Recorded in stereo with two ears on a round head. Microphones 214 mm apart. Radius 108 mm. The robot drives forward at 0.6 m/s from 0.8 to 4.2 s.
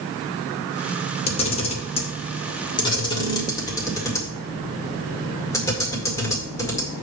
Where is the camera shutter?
25° left (ahead or behind), 1.1 m; by 6.9 s 15° left (ahead or behind), 2 m.